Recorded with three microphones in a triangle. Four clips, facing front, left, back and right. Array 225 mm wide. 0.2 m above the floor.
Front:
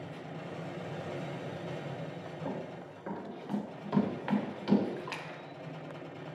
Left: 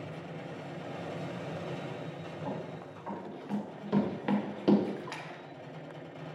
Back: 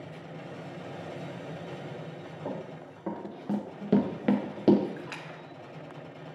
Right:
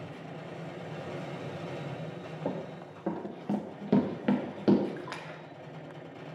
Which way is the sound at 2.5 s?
100° right.